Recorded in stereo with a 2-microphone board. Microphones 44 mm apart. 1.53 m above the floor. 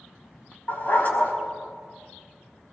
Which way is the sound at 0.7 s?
45° left (ahead or behind).